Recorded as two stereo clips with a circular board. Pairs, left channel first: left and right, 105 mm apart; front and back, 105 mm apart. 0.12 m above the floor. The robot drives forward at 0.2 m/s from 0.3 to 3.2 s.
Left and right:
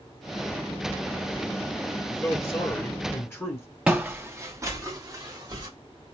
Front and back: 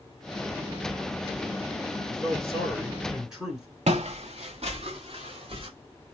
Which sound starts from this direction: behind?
Footsteps, at 3.9 s.